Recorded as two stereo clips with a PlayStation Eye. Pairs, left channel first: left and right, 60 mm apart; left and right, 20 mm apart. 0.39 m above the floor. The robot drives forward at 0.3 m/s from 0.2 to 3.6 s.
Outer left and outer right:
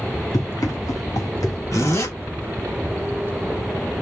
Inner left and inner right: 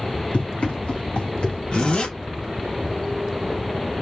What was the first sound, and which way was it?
Running footsteps, 70° left (ahead or behind).